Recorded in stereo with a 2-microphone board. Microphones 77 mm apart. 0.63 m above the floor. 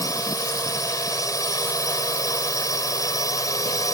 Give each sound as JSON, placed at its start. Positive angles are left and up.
{"t": 0.0, "sound": "a drone", "side_deg": 45}